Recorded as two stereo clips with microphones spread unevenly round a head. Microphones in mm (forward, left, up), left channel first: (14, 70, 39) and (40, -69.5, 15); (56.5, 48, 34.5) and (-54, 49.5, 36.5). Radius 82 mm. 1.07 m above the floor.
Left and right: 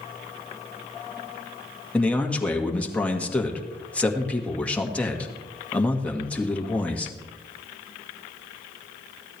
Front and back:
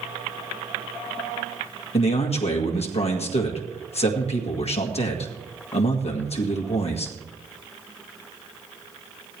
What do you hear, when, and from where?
1.9 s a man speaking: 15° left, 1.9 m